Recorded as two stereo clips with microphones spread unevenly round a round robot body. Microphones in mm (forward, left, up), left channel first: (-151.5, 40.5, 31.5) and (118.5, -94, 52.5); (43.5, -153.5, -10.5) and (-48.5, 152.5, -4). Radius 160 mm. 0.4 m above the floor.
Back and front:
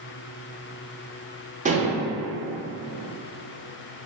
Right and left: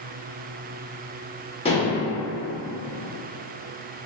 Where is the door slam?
No door slam in this recording.